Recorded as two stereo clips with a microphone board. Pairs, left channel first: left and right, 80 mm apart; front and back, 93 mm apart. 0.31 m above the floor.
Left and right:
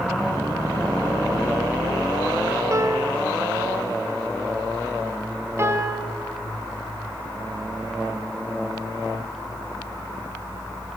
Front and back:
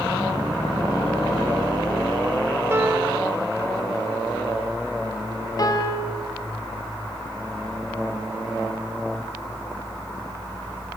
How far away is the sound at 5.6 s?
About 2.5 m.